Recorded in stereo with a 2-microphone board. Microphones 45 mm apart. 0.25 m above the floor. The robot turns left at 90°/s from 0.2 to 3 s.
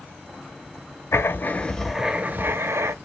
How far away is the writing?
About 0.6 m.